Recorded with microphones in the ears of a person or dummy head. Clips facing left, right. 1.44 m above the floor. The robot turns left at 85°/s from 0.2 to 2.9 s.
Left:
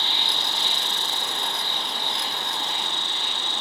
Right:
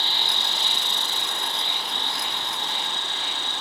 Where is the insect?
35° right, 0.9 m; by 3.6 s 95° left, 0.9 m.